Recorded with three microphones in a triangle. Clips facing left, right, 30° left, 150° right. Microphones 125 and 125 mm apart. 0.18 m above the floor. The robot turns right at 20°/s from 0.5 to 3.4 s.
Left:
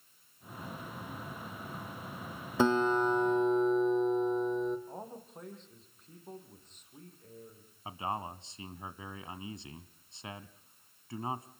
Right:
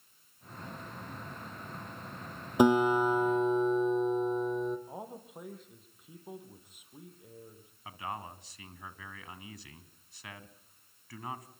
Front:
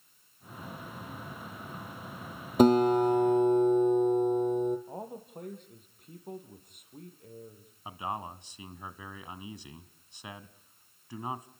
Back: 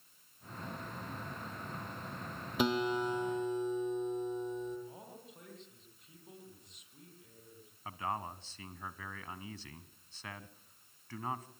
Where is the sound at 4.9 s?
10° right, 5.5 m.